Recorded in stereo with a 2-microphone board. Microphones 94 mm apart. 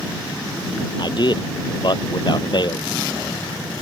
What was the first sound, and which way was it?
A man speaking, 55° left (ahead or behind).